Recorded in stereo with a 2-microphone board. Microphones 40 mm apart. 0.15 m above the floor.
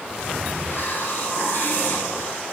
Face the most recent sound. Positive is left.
turn(degrees=60)  # may be behind; listen again after turning